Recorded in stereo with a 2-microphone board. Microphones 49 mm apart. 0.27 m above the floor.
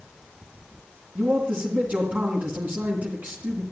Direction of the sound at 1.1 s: 30° right (ahead or behind).